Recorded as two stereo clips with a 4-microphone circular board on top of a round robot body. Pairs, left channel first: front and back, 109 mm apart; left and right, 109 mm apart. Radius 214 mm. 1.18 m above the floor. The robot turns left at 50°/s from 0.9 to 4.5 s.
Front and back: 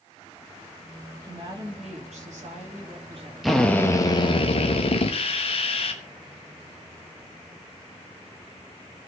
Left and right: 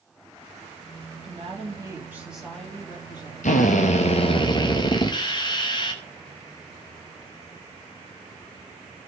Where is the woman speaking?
120° right, 4 m; by 3.3 s 135° left, 4 m.